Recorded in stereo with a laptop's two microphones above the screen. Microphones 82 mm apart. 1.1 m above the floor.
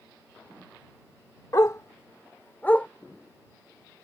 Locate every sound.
1.5 s a dog barking: 45° left (ahead or behind); by 2.9 s 20° left (ahead or behind)